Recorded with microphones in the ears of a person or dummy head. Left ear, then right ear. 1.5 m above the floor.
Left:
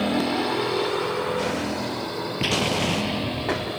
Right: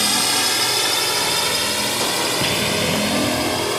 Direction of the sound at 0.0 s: 70° right (ahead or behind).